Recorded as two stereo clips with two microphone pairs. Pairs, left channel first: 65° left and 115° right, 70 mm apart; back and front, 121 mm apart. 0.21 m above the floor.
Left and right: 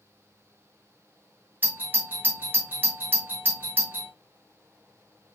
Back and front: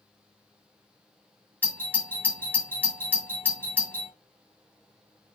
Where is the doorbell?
130° right, 1.8 m.